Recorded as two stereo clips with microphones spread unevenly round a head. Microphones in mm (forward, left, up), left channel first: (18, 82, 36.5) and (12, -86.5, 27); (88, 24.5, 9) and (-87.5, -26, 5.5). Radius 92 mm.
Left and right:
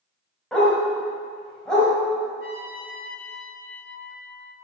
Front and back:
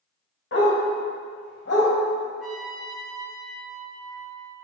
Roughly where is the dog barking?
Ahead.